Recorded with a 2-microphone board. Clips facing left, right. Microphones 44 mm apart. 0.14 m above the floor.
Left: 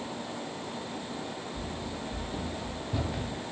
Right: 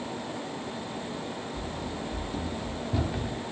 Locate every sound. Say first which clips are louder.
1.6 s running footsteps: right 2 dB; 30° left (ahead or behind), 1.2 m; by 3.4 s 5° right (ahead or behind), 1.8 m